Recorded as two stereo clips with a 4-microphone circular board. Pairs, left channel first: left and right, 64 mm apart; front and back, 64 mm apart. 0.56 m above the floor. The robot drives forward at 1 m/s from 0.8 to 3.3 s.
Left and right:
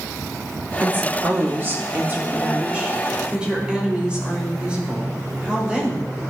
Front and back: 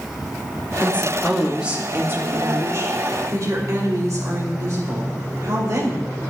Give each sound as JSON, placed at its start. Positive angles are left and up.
{"t": 0.8, "sound": "a woman speaking", "azimuth_deg": -50, "distance_m": 1.2}